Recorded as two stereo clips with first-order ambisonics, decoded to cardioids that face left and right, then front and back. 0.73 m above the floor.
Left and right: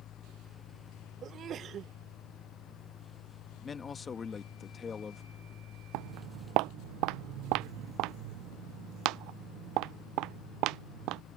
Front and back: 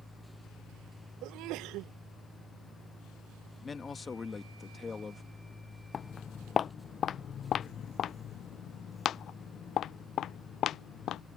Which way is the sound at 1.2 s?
145° right.